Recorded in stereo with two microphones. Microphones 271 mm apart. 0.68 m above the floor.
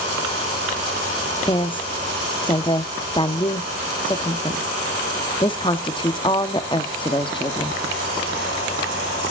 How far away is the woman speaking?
About 0.9 m.